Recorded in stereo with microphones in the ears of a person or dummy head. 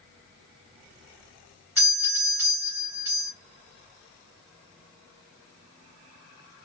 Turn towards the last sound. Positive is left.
turn(degrees=-10)  # may be behind; listen again after turning